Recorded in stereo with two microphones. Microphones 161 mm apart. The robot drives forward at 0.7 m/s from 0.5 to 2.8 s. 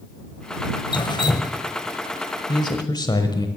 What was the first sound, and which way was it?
Dripping, 30° left (ahead or behind).